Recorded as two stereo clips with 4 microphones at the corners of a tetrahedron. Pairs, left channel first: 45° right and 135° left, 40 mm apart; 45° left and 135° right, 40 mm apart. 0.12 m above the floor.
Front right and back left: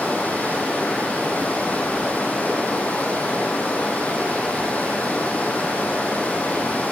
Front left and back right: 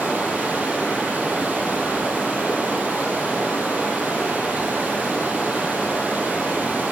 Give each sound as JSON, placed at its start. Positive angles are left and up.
{"t": 0.0, "sound": "running water", "azimuth_deg": -95, "distance_m": 1.7}